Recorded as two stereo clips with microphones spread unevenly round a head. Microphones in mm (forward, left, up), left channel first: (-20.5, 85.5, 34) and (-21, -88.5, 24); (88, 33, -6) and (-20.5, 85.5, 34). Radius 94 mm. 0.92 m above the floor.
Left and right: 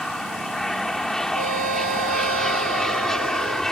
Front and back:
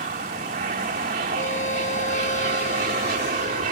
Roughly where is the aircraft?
Behind.